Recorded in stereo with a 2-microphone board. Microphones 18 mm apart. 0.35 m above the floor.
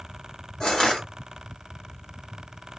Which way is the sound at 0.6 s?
35° left (ahead or behind).